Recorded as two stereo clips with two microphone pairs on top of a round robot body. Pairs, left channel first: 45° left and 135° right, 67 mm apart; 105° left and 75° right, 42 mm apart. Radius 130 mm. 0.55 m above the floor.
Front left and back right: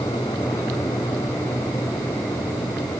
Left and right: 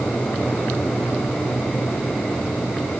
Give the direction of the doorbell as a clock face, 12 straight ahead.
No doorbell in this recording.